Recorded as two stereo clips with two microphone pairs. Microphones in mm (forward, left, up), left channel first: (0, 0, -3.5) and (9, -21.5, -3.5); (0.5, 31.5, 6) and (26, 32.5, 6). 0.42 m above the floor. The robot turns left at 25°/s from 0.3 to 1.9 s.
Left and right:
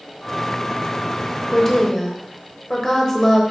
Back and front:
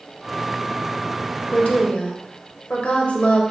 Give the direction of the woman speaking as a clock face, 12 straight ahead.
6 o'clock.